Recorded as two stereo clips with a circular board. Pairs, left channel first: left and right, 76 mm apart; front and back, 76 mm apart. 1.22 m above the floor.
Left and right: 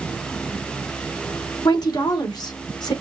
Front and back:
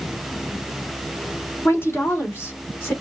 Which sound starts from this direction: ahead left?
A woman speaking, at 1.6 s.